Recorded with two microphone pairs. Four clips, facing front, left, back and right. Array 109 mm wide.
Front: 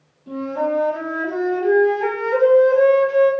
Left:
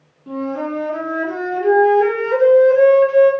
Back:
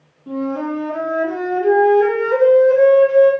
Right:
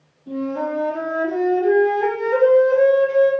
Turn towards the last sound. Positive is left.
turn(degrees=120)